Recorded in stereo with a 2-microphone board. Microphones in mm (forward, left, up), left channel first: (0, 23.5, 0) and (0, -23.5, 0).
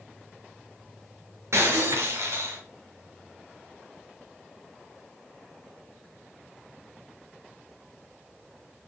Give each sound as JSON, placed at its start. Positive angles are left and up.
{"t": 1.5, "sound": "breaking glass", "side_deg": -85, "distance_m": 5.0}